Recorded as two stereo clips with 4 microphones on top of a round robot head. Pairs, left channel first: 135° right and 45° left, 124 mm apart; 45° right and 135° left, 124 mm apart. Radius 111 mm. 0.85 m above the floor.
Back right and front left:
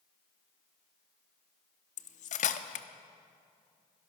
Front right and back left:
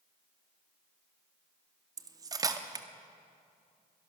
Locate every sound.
2.0 s cutlery clinking: 160° right, 0.8 m